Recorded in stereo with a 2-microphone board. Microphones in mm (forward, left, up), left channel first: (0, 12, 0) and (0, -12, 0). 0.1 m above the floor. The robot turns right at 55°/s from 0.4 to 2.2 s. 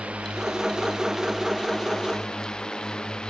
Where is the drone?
65° right; by 3.3 s 35° left.